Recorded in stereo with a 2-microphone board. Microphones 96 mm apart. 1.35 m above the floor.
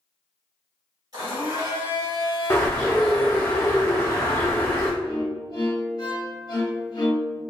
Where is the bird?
25° left (ahead or behind), 1.0 m.